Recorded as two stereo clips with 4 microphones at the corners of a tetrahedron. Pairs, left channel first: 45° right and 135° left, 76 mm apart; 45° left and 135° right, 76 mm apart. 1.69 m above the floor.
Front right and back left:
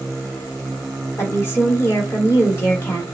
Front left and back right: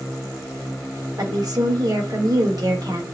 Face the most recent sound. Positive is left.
turn(degrees=-100)